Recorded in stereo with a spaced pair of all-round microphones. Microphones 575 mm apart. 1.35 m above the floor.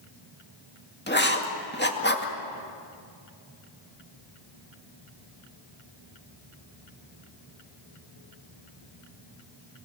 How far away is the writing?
About 2 m.